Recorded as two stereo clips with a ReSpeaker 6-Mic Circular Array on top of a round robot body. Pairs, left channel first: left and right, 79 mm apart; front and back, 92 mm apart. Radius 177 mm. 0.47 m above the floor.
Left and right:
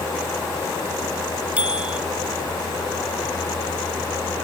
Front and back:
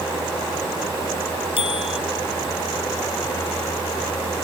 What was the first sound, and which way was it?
A bicycle bell, 15° right.